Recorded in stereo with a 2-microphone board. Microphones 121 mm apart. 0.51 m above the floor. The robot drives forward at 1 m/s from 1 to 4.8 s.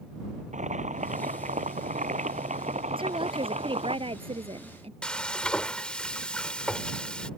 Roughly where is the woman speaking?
Right.